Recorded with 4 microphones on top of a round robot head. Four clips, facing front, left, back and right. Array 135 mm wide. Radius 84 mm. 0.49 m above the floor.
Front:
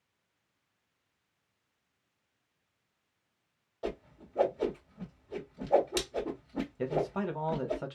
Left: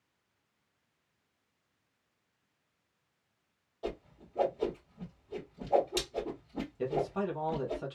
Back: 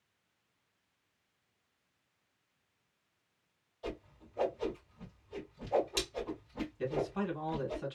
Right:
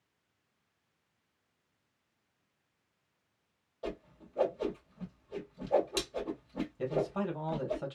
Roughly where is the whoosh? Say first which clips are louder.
Left 1 dB, front 5 dB; ahead.